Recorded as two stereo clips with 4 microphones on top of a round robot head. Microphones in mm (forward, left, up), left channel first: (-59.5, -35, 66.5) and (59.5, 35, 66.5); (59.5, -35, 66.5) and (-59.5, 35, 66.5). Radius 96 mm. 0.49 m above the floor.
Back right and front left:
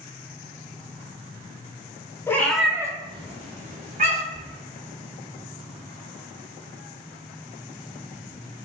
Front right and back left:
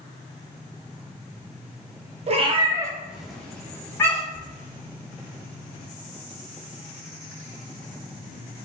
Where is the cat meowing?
145° left, 0.5 m; by 4.5 s 35° left, 1.1 m.